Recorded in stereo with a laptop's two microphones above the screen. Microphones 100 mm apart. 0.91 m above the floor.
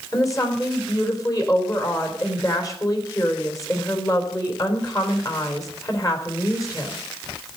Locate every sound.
0.1 s a woman speaking: 35° left (ahead or behind), 3.5 m